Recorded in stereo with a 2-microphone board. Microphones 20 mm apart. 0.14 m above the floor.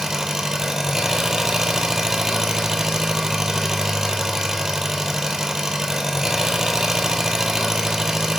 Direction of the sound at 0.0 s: 25° right (ahead or behind).